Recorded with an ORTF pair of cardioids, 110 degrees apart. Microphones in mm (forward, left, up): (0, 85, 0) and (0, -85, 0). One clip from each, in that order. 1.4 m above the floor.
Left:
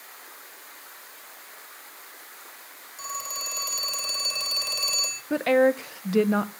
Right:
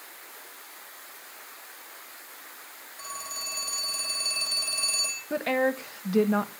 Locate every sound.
3.0 s a phone ringing: 50° left, 3 m
5.3 s a woman speaking: 20° left, 1.0 m